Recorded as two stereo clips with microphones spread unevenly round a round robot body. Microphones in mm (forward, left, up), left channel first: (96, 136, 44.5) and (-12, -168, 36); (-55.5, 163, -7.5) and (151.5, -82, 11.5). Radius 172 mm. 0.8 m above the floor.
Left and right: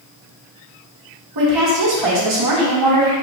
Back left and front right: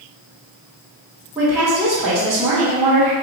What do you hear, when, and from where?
1.4 s a woman speaking: 135° right, 1.9 m